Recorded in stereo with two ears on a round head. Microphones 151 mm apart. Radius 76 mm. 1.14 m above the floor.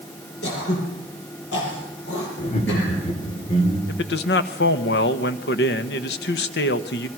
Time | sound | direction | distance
0.4 | throat clearing | 75° left (ahead or behind) | 7 m
2.4 | laughter | 40° left (ahead or behind) | 4.5 m
3.9 | a man speaking | 70° left (ahead or behind) | 1.3 m